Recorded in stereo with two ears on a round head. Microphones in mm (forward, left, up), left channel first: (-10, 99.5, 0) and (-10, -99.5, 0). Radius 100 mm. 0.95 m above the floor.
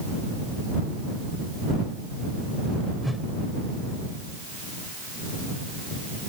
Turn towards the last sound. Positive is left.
turn(degrees=0)  # may be behind; listen again after turning